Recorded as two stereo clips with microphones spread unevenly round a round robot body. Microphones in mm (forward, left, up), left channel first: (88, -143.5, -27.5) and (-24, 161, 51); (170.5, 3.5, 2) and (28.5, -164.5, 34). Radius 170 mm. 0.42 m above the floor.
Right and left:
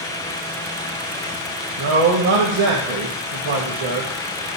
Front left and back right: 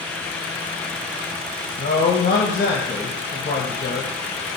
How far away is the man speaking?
About 1.8 m.